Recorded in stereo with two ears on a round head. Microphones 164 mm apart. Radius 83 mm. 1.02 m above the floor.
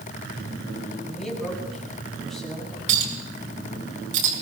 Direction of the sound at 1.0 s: Centre (ahead or behind).